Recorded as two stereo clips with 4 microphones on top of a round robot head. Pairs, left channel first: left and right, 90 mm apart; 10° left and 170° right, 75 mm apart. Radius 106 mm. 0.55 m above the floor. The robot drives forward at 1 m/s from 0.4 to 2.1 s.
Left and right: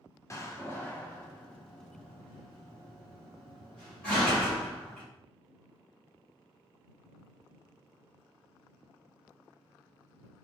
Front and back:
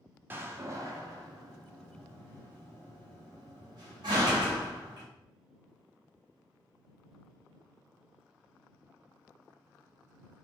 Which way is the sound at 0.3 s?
135° left.